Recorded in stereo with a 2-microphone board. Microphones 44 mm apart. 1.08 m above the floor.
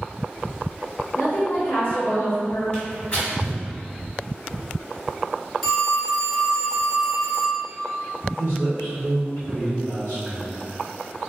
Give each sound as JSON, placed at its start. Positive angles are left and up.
{"t": 1.2, "sound": "a woman speaking", "side_deg": 50, "distance_m": 0.7}
{"t": 2.7, "sound": "tearing paper", "side_deg": 30, "distance_m": 1.9}
{"t": 5.6, "sound": "a phone ringing", "side_deg": 0, "distance_m": 1.0}
{"t": 8.4, "sound": "a man speaking", "side_deg": 65, "distance_m": 1.4}